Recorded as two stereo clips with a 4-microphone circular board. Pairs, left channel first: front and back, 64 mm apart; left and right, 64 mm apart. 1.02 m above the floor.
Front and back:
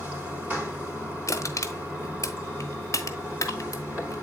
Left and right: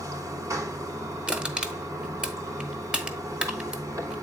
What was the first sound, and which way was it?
Running water, 125° right.